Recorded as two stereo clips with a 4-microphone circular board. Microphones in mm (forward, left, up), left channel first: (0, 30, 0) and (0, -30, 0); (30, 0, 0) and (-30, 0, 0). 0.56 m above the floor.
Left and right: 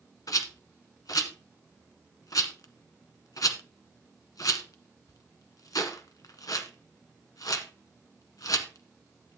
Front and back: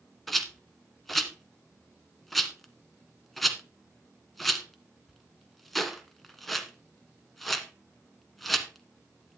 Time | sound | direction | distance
0.3 | a rattle | 90° left | 1.3 m